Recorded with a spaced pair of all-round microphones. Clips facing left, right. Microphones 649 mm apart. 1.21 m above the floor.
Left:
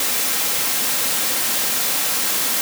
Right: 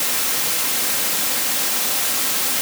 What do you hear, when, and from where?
Only background noise.